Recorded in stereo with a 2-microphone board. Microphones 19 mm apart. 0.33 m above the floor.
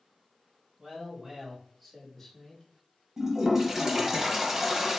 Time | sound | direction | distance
0.8 | a man speaking | 50° right (ahead or behind) | 1.8 m
3.2 | a toilet flushing | 30° right (ahead or behind) | 0.8 m